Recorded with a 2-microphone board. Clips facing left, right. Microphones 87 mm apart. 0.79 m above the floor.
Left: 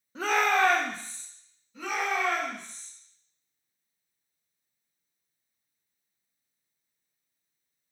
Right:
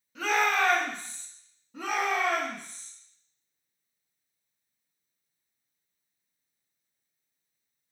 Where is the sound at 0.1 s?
35° left (ahead or behind), 0.8 m.